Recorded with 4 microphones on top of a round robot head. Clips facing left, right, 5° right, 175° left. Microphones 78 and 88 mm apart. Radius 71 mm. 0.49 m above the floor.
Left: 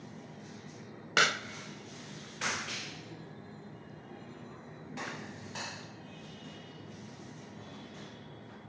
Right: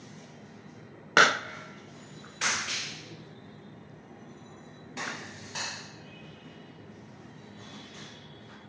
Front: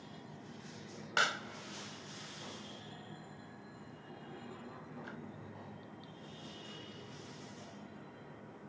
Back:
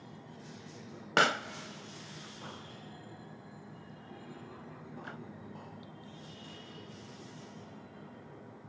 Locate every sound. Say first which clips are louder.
1.2 s a pop: right 7 dB, back 6 dB; 135° right